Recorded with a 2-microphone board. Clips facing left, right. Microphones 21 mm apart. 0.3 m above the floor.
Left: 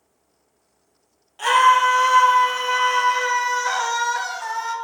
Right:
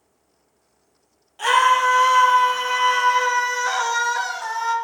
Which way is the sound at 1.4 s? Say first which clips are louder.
Left 1 dB; 5° left (ahead or behind).